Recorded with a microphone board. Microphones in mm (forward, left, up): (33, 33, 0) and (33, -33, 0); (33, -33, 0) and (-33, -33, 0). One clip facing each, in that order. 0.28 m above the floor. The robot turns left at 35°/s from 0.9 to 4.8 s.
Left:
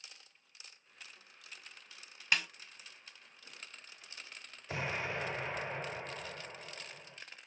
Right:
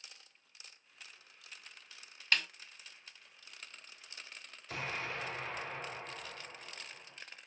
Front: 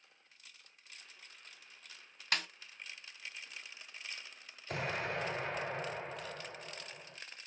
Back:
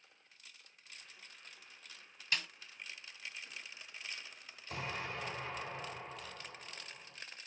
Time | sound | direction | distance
2.3 | a snare drum | 10° left | 0.6 m
4.7 | an explosion | 25° left | 1.1 m